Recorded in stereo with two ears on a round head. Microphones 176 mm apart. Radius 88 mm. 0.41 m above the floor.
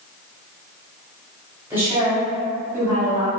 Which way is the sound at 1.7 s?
10° right (ahead or behind).